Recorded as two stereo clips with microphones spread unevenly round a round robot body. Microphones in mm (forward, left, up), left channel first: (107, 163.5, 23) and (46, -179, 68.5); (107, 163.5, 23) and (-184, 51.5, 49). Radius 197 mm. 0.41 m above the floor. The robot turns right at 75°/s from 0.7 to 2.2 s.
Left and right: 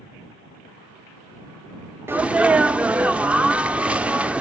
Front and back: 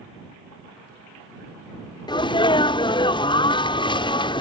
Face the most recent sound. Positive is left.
turn(degrees=0)